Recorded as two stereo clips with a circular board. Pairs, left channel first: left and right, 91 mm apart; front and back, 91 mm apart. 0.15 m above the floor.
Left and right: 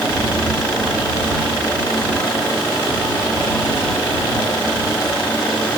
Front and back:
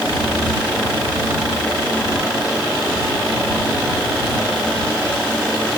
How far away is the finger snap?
I don't hear a finger snap.